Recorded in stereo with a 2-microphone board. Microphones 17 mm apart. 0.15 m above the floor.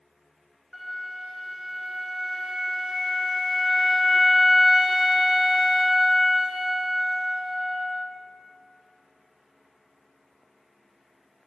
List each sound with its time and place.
0.7 s a flute: centre (ahead or behind), 1.1 m